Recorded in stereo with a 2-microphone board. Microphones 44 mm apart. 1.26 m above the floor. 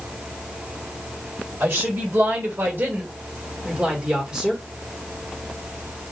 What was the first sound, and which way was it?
A woman speaking, 65° right (ahead or behind).